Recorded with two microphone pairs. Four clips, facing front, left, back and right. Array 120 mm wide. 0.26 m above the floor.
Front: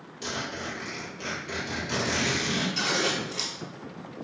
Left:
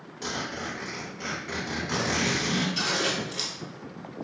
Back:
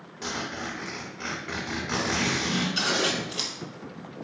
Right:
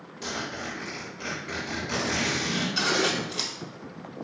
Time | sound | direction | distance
0.2 | a zipper | 165° left | 1.0 m
2.8 | scissors | 115° right | 0.6 m